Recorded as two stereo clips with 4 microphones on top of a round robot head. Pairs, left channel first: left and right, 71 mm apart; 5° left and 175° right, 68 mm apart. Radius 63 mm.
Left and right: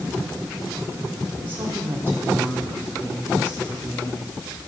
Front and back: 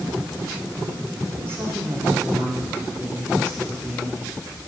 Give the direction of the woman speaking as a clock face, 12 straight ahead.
4 o'clock.